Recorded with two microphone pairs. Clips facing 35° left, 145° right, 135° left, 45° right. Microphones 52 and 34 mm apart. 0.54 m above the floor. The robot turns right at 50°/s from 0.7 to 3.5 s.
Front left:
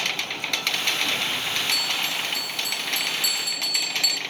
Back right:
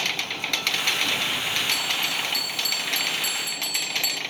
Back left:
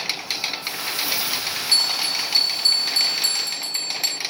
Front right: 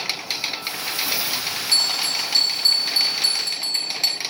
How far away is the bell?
About 0.6 m.